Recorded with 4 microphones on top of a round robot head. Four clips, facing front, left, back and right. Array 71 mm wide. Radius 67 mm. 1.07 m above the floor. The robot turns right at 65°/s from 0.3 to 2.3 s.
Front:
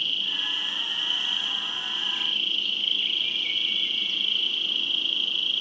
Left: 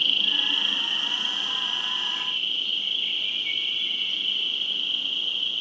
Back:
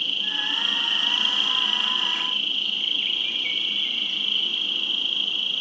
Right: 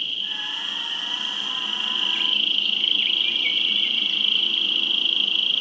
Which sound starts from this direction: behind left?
An insect, at 0.0 s.